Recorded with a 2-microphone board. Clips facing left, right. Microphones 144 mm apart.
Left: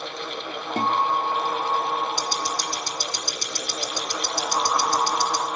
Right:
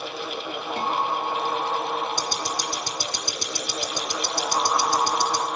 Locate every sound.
0.8 s a guitar: 50° left (ahead or behind), 0.9 m
2.2 s ticking: 45° right (ahead or behind), 1.7 m